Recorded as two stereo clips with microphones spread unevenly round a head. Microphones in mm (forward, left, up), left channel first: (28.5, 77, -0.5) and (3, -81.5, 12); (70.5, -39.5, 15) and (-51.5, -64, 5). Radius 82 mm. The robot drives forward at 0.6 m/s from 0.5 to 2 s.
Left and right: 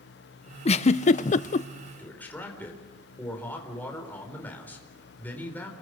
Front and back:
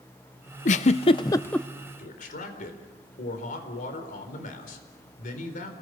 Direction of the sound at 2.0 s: Straight ahead.